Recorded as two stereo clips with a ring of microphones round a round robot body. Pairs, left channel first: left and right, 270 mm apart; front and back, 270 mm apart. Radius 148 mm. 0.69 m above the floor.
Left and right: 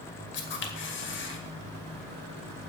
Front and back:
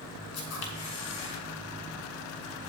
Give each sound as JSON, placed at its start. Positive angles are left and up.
{"t": 0.3, "sound": "a camera shutter", "azimuth_deg": 40, "distance_m": 2.0}